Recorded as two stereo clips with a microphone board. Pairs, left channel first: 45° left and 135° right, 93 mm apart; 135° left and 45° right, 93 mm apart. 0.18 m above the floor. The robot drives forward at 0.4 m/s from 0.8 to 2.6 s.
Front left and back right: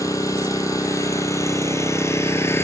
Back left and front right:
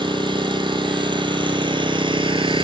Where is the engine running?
10° right, 1.8 m; by 2.7 s 20° right, 1.1 m.